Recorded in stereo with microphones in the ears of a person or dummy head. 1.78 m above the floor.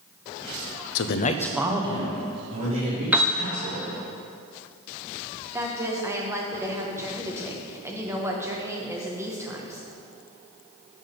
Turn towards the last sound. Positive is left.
turn(degrees=-10)  # may be behind; listen again after turning